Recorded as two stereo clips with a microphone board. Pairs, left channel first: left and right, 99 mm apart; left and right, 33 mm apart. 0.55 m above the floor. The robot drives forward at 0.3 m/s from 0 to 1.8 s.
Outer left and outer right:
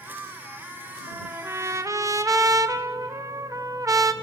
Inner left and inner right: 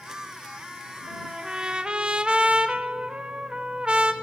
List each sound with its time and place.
1.1 s a trumpet: 25° right (ahead or behind), 0.8 m; by 4.1 s 35° right (ahead or behind), 0.6 m